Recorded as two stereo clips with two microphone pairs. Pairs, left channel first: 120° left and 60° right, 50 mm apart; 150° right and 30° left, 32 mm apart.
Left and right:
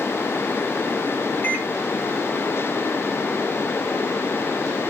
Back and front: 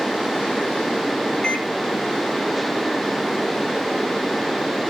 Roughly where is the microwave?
Behind left.